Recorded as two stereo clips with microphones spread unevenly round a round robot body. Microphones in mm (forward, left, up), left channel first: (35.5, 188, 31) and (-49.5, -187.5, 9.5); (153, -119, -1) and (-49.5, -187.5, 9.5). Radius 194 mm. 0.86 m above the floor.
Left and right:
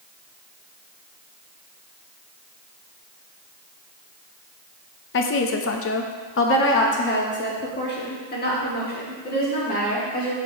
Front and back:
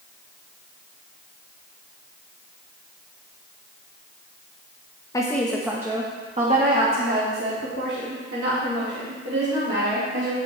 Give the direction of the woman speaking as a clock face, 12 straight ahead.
10 o'clock.